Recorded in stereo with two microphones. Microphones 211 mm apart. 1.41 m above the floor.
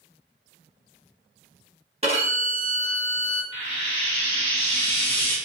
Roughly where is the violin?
Right.